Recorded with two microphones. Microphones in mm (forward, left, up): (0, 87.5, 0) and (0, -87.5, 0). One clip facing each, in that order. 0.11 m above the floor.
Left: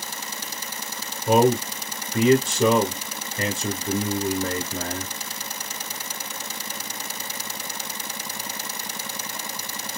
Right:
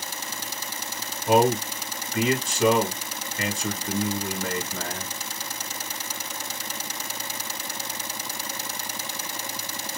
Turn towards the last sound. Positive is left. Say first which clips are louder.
# left 2 dB
turn(degrees=30)  # may be behind; listen again after turning